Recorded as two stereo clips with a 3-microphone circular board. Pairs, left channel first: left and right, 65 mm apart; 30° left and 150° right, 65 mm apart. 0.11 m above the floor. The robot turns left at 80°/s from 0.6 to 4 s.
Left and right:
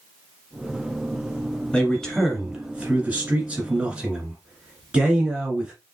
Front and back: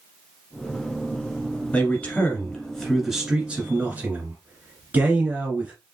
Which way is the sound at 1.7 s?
40° left.